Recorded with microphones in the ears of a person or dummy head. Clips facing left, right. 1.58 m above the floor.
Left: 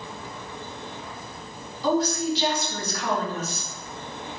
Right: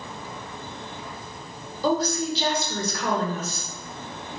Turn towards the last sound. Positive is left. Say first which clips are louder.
# left 1 dB
turn(degrees=-65)  # may be behind; listen again after turning